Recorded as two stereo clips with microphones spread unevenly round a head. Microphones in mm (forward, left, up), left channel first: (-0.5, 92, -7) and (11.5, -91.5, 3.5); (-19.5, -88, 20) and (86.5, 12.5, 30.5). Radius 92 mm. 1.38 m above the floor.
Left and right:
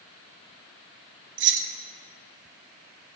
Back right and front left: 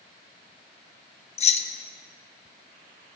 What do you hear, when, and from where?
1.4 s keys jangling: 95° right, 0.8 m